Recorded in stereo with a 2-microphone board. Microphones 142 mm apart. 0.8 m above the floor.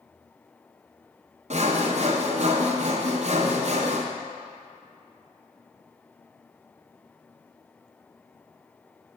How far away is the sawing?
About 0.5 m.